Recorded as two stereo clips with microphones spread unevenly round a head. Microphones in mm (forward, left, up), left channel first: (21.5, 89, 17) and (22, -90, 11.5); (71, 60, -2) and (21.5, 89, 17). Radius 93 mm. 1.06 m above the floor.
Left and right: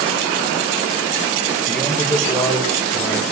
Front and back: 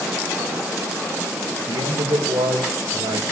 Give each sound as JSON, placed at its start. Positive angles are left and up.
{"t": 1.7, "sound": "a man speaking", "azimuth_deg": 175, "distance_m": 5.0}